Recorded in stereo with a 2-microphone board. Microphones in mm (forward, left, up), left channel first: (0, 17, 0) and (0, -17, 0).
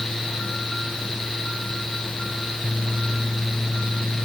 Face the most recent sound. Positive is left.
No sound to turn to.